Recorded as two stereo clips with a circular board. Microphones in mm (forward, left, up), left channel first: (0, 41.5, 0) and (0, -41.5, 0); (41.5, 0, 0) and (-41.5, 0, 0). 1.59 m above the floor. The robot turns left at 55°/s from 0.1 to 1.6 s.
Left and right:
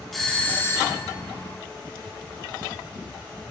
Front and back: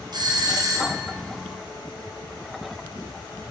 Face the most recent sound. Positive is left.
turn(degrees=95)